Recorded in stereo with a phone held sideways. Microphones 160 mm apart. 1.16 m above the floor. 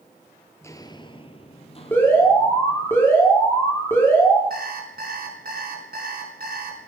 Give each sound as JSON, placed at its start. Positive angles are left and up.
{"t": 0.6, "sound": "footsteps", "side_deg": 15, "distance_m": 1.2}
{"t": 1.9, "sound": "an alarm", "side_deg": 15, "distance_m": 5.0}
{"t": 4.5, "sound": "an alarm clock", "side_deg": -70, "distance_m": 4.5}